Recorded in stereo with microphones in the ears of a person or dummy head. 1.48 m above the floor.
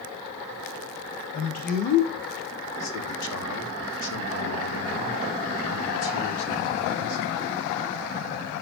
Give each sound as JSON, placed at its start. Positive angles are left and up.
{"t": 1.3, "sound": "a man speaking", "side_deg": 35, "distance_m": 2.5}